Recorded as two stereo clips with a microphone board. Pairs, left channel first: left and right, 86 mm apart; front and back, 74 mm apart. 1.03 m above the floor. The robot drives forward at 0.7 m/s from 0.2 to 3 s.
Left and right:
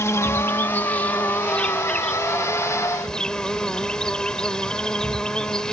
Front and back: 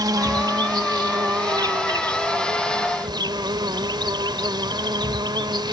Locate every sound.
0.0 s an insect: 145° left; by 5.7 s 170° left